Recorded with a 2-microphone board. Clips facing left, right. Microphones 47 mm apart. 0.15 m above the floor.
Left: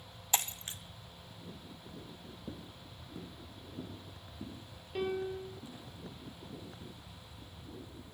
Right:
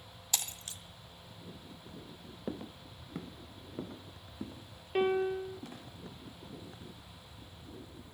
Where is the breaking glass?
30° left (ahead or behind), 1.3 m.